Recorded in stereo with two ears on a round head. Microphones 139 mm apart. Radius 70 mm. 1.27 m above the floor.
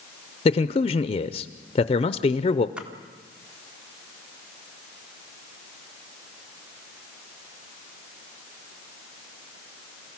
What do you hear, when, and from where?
0.5 s a man speaking: 35° left (ahead or behind), 0.6 m
2.8 s a splash: 10° right (ahead or behind), 1.8 m